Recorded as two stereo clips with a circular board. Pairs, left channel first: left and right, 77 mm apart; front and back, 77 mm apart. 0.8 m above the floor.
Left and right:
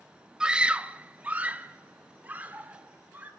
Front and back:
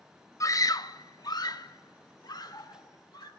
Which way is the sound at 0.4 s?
15° right.